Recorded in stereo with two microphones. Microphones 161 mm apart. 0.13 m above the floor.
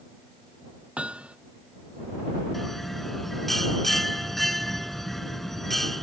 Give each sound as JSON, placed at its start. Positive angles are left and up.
{"t": 1.0, "sound": "hammering", "side_deg": -5}
{"t": 2.5, "sound": "a bell", "side_deg": 0}